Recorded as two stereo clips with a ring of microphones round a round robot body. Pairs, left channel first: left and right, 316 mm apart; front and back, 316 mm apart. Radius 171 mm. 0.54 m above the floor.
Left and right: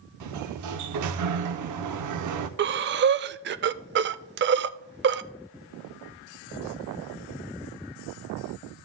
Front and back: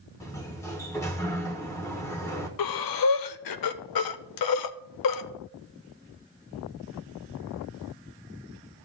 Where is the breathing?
35° right, 0.5 m.